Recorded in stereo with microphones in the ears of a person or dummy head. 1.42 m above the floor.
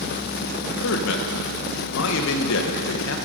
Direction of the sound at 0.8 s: 75° left (ahead or behind).